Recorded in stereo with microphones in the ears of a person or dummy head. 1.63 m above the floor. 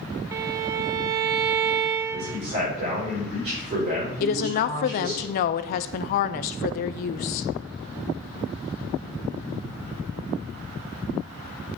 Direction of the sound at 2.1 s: 30° right (ahead or behind).